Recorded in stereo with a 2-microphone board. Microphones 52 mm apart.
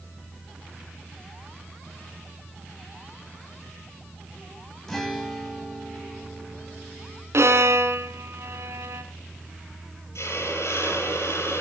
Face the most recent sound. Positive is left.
turn(degrees=70)  # may be behind; listen again after turning